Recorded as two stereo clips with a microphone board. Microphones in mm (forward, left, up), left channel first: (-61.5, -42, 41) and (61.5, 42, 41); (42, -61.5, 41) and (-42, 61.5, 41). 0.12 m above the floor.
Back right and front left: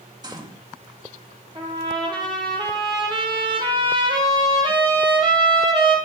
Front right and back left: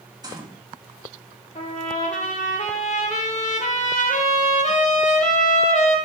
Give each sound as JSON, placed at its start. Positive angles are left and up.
{"t": 0.2, "sound": "a gunshot", "azimuth_deg": 80, "distance_m": 1.7}
{"t": 1.6, "sound": "a trumpet", "azimuth_deg": -20, "distance_m": 2.5}